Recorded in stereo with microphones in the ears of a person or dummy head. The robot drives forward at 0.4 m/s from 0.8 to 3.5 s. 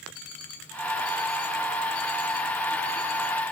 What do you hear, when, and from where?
0.1 s an alarm clock: 55° left (ahead or behind), 6 m; by 3.4 s 60° left (ahead or behind), 5.5 m